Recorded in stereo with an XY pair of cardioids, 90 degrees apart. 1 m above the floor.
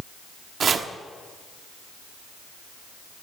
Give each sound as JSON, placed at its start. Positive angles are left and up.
{"t": 0.6, "sound": "chopping", "azimuth_deg": -55, "distance_m": 1.1}